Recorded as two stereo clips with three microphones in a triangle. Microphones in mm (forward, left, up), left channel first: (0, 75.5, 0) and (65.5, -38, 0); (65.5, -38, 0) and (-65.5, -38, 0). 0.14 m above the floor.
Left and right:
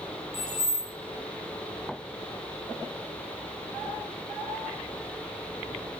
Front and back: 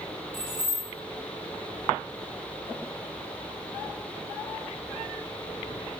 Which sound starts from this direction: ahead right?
Keys jangling, at 0.3 s.